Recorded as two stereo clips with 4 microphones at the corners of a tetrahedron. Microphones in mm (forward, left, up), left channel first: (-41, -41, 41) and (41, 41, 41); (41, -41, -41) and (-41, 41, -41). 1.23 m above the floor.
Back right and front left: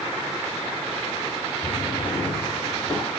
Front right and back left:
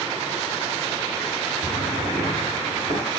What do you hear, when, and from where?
1.6 s a drawer: 55° right, 5 m